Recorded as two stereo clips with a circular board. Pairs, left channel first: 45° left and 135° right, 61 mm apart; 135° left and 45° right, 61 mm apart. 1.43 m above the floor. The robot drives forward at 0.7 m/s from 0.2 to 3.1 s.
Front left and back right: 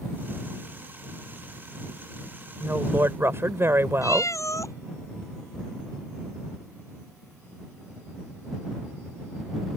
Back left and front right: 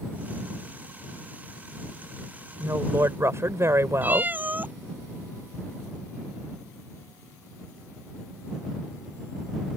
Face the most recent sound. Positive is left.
turn(degrees=15)